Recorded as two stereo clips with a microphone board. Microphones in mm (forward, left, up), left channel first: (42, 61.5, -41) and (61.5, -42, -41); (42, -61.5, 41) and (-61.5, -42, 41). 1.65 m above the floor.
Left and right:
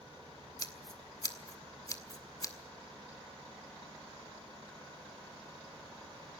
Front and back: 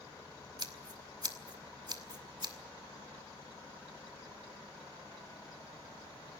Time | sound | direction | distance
0.6 | scissors | 145° left | 1.7 m